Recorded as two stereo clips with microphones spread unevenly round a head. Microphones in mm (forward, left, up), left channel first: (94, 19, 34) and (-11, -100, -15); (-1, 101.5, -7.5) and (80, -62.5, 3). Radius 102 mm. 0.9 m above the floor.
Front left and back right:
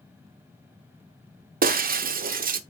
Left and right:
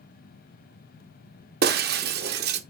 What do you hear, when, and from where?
1.6 s breaking glass: 95° right, 0.8 m